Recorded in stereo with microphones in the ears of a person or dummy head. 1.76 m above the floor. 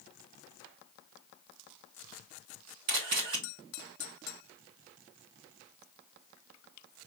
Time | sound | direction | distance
2.9 | a camera shutter | 60° right (ahead or behind) | 1.7 m